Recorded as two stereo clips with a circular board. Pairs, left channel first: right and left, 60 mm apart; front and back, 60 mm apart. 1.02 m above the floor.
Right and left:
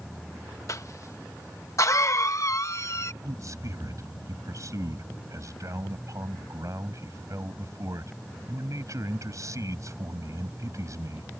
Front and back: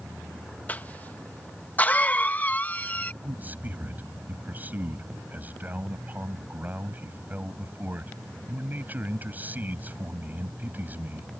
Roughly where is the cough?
Ahead right.